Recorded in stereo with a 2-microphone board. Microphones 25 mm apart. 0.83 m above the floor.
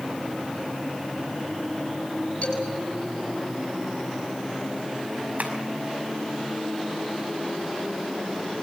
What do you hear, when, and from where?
2.4 s a man speaking: 60° left (ahead or behind), 6.5 m
5.4 s tapping: 85° right, 5.5 m